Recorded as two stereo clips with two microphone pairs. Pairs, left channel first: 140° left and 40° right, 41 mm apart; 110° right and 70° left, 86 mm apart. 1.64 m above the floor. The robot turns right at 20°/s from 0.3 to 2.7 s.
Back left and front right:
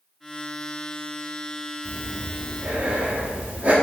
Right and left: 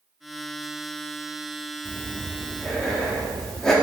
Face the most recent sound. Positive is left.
turn(degrees=-30)